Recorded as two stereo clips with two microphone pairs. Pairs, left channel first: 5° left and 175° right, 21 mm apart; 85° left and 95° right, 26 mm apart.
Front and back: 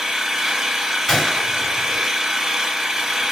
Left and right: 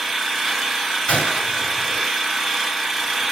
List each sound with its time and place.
0.0 s an engine running: 160° left, 0.9 m
1.1 s a gunshot: 85° left, 2 m